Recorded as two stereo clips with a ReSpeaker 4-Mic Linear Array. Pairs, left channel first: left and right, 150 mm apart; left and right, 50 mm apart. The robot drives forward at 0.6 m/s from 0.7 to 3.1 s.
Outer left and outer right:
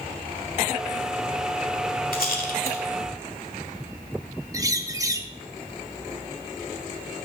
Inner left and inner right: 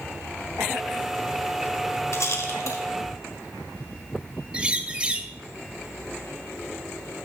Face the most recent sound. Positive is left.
turn(degrees=-25)  # may be behind; listen again after turning